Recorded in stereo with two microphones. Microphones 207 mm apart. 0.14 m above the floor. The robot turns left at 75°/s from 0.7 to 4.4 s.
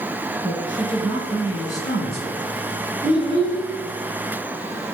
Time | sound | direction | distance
0.4 | a woman speaking | 140° right | 1.5 m
3.0 | a child speaking | 125° right | 1.2 m